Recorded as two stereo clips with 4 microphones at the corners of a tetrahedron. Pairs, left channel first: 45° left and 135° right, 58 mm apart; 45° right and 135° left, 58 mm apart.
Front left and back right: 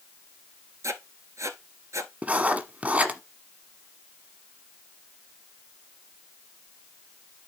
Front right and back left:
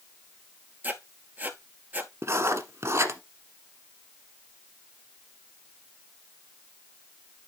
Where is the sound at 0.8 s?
165° right, 1.0 m.